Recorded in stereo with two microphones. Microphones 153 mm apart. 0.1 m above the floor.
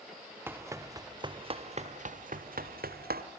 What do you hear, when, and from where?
0.5 s running footsteps: 15° right (ahead or behind), 1.5 m; by 3.2 s 85° right, 1.4 m